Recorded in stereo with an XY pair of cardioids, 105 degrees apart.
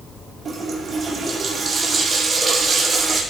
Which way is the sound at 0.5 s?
40° right.